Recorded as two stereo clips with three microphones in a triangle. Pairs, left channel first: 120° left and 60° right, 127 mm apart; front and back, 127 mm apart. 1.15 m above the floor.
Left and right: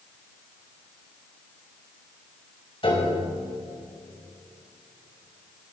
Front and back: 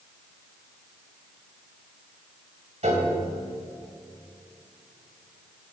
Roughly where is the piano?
Behind.